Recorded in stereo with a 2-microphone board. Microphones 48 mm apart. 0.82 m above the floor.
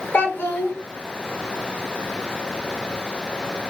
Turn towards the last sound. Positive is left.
turn(degrees=40)  # may be behind; listen again after turning